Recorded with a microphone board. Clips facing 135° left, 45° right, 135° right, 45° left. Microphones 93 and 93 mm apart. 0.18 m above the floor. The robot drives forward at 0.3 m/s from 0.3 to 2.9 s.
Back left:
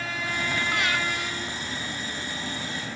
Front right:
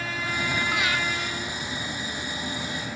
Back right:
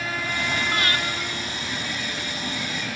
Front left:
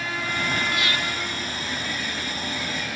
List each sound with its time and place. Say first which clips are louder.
0.7 s breathing: back left 1 dB, back right 1 dB; 125° right, 0.9 m; by 1.0 s 135° right, 0.9 m